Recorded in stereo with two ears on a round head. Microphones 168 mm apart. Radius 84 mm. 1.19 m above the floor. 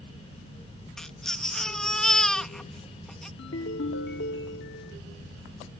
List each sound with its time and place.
1.0 s a baby crying: 5° left (ahead or behind)
3.4 s a ringtone: 65° left (ahead or behind)